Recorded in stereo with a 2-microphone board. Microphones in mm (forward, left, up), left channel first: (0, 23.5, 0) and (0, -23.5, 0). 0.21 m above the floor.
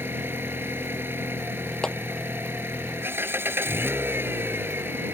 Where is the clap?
15° left (ahead or behind).